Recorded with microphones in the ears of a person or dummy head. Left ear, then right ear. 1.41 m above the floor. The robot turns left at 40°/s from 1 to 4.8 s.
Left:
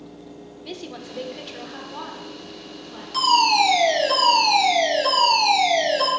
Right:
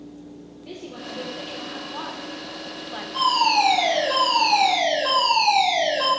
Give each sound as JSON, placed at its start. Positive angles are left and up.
{"t": 0.6, "sound": "a woman speaking", "azimuth_deg": 35, "distance_m": 1.4}
{"t": 3.1, "sound": "a fire alarm", "azimuth_deg": 100, "distance_m": 3.5}